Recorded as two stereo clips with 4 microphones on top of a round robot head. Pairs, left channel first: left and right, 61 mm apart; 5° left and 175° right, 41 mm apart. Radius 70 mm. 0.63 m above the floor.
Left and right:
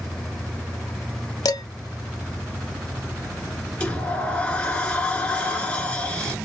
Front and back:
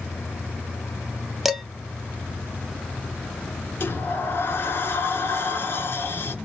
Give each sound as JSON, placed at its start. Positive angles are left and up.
{"t": 1.4, "sound": "dishes clattering", "azimuth_deg": 95, "distance_m": 0.7}
{"t": 3.8, "sound": "a sliding door", "azimuth_deg": 25, "distance_m": 1.6}